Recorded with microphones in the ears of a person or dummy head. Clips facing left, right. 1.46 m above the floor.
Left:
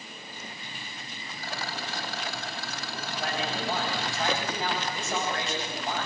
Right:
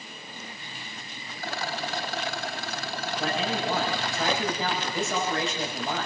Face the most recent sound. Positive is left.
turn(degrees=-75)  # may be behind; listen again after turning